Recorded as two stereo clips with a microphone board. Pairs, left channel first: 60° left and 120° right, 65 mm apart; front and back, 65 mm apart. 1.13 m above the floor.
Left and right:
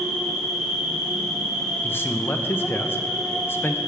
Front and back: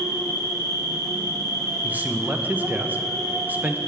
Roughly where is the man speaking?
Behind left.